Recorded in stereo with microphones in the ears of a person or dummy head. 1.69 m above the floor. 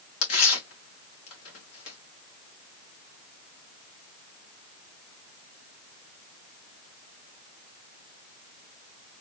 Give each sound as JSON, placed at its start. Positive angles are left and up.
{"t": 0.2, "sound": "tearing paper", "side_deg": 85, "distance_m": 2.0}